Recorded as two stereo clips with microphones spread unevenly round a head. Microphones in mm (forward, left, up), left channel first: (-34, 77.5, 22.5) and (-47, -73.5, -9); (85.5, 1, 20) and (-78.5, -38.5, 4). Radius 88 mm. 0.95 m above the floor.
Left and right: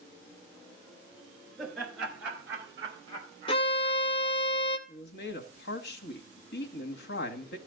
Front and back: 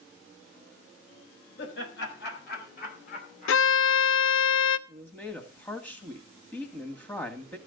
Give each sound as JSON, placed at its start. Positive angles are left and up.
{"t": 1.6, "sound": "laughter", "azimuth_deg": 0, "distance_m": 4.0}
{"t": 3.5, "sound": "a violin", "azimuth_deg": 20, "distance_m": 0.5}
{"t": 4.9, "sound": "a man speaking", "azimuth_deg": 95, "distance_m": 1.6}